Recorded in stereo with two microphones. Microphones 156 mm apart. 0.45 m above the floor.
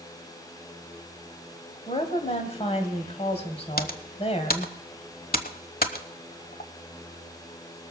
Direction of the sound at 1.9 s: 40° left (ahead or behind).